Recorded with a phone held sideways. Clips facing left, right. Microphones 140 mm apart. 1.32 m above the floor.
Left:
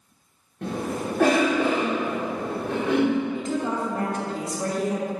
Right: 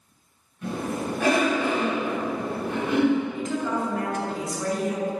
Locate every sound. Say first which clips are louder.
0.6 s a cough: left 1 dB; 60° left (ahead or behind), 1.3 m
3.4 s a woman speaking: even; 30° left (ahead or behind), 1.4 m